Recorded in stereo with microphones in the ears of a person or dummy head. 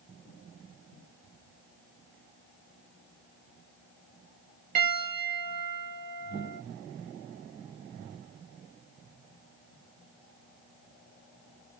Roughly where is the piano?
Right.